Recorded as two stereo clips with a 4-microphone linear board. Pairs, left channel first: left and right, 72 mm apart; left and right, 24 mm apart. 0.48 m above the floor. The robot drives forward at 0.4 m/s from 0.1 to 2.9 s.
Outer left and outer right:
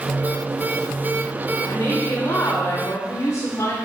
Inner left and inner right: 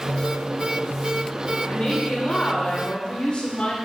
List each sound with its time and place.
1.6 s a woman speaking: 35° left (ahead or behind), 1.2 m; by 3.8 s 45° left (ahead or behind), 1.0 m